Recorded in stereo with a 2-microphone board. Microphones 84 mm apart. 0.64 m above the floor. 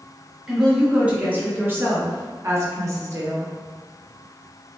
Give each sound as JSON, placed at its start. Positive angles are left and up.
{"t": 0.5, "sound": "a woman speaking", "side_deg": -10, "distance_m": 1.2}